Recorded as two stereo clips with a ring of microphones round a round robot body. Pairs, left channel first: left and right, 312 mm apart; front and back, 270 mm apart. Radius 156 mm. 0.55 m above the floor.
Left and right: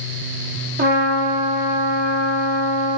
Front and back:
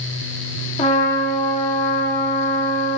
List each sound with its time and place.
0.8 s a trumpet: 55° right, 0.5 m